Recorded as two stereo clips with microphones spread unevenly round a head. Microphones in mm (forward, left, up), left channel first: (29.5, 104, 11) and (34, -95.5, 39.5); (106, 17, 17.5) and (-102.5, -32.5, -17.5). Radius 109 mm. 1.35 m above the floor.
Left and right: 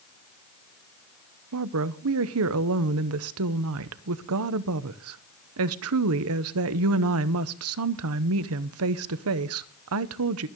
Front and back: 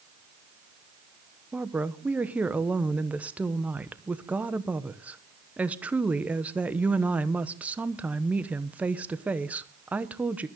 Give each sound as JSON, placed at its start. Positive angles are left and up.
{"t": 1.5, "sound": "a woman speaking", "azimuth_deg": -85, "distance_m": 0.9}